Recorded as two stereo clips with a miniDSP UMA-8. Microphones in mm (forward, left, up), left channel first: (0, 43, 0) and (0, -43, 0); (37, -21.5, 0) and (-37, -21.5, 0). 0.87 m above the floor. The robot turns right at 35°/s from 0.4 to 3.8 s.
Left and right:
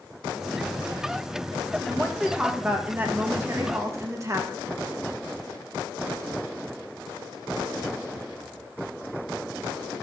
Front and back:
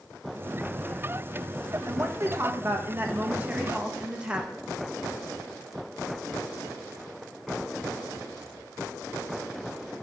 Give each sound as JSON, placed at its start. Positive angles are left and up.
{"t": 1.9, "sound": "a woman speaking", "azimuth_deg": 180, "distance_m": 1.1}